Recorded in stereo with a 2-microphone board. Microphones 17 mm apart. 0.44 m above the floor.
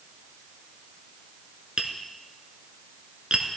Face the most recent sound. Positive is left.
turn(degrees=-75)  # may be behind; listen again after turning